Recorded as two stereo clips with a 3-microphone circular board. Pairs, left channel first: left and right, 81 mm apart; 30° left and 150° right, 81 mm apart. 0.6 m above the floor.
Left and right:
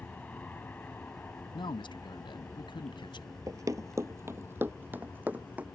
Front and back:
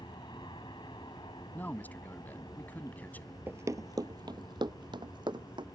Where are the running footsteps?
100° right; by 5.7 s 160° right.